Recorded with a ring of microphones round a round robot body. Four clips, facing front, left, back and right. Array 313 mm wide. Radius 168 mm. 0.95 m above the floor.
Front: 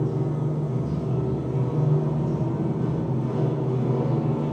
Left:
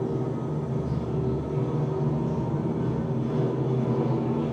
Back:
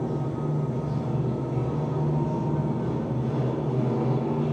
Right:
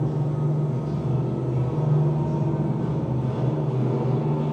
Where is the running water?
10° left, 1.9 m.